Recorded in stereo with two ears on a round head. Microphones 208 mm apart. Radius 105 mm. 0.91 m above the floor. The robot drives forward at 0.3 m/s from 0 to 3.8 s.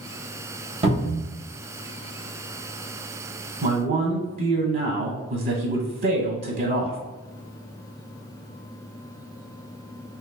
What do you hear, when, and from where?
0.8 s a cupboard door: 25° right (ahead or behind), 1.2 m; by 1.2 s 30° right (ahead or behind), 1.1 m
3.6 s a man speaking: 35° right (ahead or behind), 0.6 m; by 7.0 s 40° right (ahead or behind), 0.5 m